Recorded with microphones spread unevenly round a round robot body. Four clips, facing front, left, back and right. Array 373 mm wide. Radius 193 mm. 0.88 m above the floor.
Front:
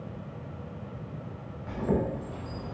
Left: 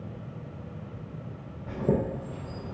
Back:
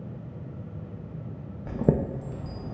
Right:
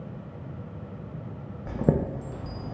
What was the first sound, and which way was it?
A chime, 110° right.